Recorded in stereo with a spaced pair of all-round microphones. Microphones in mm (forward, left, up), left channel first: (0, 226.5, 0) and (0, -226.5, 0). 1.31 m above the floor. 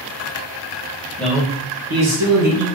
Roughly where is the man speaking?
Centre.